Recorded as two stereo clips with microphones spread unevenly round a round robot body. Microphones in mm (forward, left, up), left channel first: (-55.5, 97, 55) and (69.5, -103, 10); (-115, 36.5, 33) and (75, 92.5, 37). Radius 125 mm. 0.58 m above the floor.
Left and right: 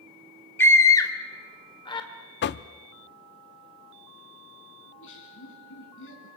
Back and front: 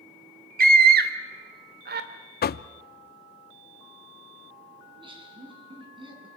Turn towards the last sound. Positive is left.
turn(degrees=80)